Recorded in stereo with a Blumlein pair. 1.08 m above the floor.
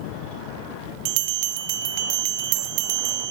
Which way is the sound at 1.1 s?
45° right.